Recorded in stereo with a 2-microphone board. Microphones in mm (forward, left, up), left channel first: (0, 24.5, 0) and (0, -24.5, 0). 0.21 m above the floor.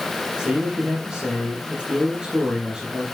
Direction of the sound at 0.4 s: 15° right (ahead or behind).